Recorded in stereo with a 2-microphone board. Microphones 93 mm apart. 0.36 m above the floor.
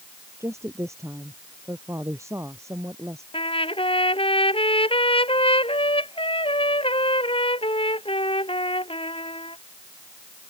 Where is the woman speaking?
30° right (ahead or behind).